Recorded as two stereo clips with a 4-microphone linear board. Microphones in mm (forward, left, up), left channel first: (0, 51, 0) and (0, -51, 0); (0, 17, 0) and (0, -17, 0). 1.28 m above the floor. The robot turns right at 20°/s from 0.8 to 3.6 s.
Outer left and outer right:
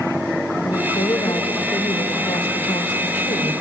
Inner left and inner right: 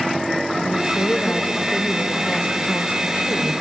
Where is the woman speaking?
45° left, 3.5 m; by 3.5 s 100° left, 3.5 m.